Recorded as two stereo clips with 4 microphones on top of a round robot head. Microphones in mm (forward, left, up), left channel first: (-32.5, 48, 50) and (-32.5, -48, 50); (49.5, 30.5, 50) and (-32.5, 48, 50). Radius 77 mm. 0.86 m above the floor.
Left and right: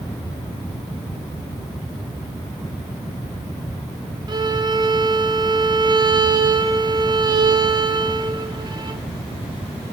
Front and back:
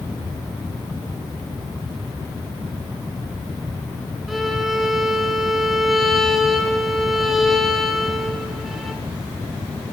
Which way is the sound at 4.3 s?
105° right.